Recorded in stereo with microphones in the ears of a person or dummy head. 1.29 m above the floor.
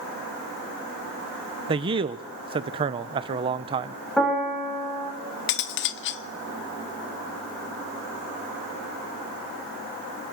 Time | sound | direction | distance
1.7 | a man speaking | 25° right (ahead or behind) | 0.9 m
4.2 | a piano | centre (ahead or behind) | 7.5 m
5.5 | cutlery clinking | 55° left (ahead or behind) | 0.9 m